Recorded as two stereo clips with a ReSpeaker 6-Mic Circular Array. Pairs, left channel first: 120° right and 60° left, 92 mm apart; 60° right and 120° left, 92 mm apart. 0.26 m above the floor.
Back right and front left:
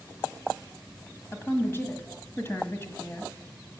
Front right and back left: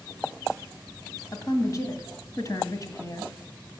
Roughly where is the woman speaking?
Right.